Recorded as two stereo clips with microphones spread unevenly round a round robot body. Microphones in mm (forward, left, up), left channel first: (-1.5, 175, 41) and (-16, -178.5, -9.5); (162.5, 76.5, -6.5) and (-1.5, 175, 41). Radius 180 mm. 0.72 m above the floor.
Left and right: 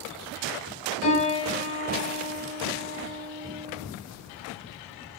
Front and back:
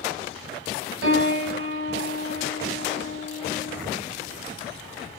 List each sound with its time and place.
1.0 s a piano: 145° left, 2.5 m